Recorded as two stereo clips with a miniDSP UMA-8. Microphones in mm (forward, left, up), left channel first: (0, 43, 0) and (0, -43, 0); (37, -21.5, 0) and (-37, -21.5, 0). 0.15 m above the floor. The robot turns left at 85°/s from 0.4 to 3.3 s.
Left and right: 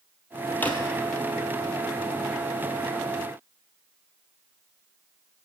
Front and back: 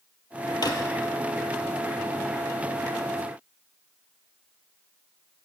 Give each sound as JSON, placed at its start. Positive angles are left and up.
{"t": 0.6, "sound": "a drawer", "azimuth_deg": 20, "distance_m": 0.9}